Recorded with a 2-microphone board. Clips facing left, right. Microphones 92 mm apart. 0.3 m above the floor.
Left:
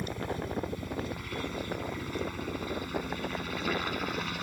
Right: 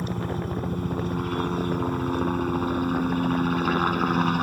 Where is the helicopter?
45° right (ahead or behind); by 4.4 s 50° right (ahead or behind).